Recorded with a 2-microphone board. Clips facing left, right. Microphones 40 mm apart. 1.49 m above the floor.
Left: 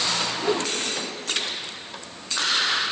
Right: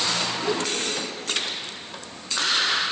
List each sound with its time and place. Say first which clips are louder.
0.4 s a whoosh: left 1 dB; 20° left (ahead or behind), 3 m